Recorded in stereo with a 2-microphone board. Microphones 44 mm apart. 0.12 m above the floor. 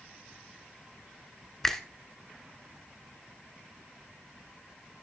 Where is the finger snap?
10° left (ahead or behind), 0.9 m.